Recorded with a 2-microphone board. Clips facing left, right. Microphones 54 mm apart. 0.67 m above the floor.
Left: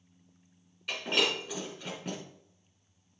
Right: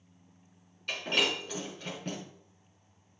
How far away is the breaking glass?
About 4.5 m.